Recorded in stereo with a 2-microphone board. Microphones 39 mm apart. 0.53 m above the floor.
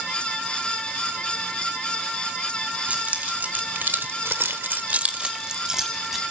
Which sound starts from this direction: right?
Keys jangling, at 2.9 s.